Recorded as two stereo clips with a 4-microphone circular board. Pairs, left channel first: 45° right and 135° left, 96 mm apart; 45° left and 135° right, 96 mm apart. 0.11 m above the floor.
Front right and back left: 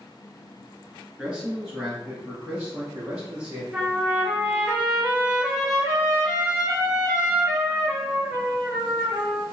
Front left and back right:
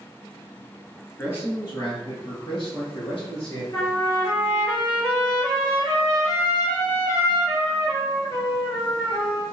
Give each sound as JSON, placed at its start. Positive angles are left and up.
{"t": 1.2, "sound": "a man speaking", "azimuth_deg": 70, "distance_m": 1.1}
{"t": 3.7, "sound": "a trumpet", "azimuth_deg": 65, "distance_m": 1.5}